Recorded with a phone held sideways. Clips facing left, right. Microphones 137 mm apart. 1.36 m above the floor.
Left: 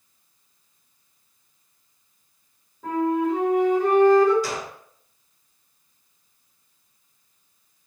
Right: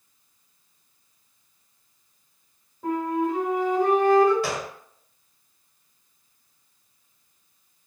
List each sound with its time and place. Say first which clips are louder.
2.8 s a flute: left 3 dB; 10° right (ahead or behind), 1.4 m
4.4 s a gunshot: right 1 dB; 65° right (ahead or behind), 0.8 m